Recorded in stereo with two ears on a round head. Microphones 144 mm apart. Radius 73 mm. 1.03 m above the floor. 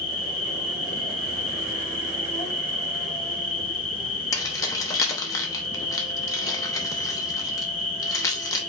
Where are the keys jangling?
20° left (ahead or behind), 0.8 m.